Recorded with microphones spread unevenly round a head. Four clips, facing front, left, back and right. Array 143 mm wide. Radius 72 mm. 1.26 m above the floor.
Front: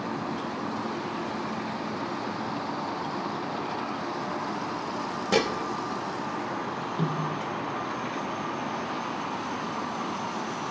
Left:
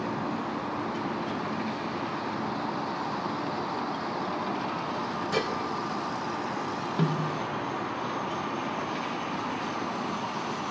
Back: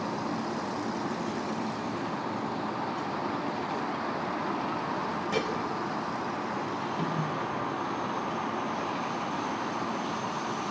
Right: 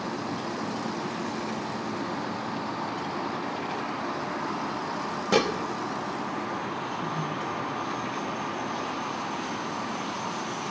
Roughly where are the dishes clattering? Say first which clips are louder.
Right 7 dB, front 7 dB; ahead right.